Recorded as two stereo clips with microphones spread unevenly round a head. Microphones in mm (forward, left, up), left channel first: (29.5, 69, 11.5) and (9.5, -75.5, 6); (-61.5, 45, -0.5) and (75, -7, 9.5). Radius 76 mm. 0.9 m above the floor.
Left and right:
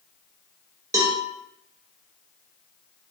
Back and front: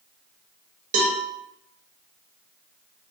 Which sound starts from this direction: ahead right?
A cowbell, at 0.9 s.